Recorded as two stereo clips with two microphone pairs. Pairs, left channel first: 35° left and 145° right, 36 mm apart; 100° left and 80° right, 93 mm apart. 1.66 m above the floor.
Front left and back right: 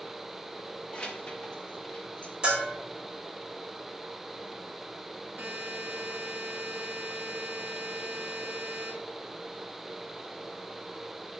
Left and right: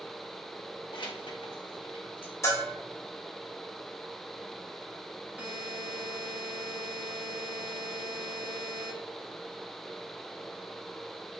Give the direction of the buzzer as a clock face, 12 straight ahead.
5 o'clock.